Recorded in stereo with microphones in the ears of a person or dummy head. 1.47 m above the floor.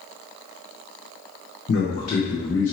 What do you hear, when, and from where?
1.7 s a man speaking: 50° left (ahead or behind), 0.9 m; by 2.7 s 10° left (ahead or behind), 1.0 m